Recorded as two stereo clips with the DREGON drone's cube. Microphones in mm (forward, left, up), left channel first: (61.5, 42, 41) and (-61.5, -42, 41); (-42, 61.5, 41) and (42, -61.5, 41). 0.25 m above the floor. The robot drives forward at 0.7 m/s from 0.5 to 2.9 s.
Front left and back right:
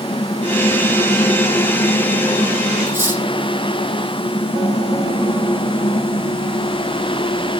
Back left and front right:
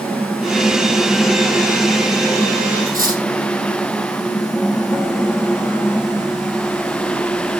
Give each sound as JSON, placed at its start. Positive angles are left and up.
{"t": 2.9, "sound": "cutlery clinking", "azimuth_deg": -70, "distance_m": 6.0}